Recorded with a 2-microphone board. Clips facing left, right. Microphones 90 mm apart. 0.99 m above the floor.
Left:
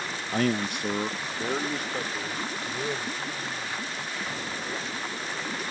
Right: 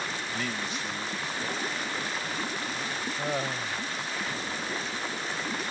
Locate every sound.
0.3 s a man speaking: 45° left (ahead or behind); by 3.1 s 70° left (ahead or behind)
3.2 s laughter: 80° right